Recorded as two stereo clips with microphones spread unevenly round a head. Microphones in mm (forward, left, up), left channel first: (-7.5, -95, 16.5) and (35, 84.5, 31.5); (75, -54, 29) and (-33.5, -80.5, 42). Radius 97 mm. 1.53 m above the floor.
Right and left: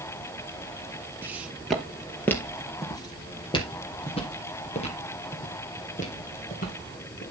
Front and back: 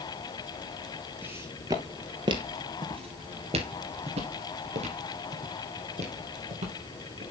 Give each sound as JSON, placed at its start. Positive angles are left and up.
{"t": 1.2, "sound": "footsteps", "azimuth_deg": 140, "distance_m": 1.7}